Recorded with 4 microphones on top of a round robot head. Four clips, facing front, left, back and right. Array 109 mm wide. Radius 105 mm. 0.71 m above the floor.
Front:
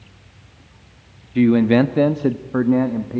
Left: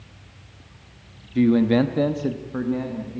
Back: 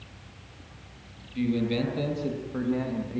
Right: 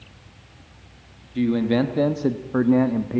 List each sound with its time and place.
1.4 s a man speaking: 15° left, 1.1 m; by 3.2 s 55° right, 1.1 m